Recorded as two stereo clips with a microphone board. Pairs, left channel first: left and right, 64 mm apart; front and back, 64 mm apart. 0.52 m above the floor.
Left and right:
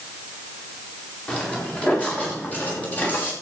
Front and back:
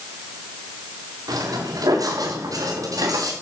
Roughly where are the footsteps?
Behind.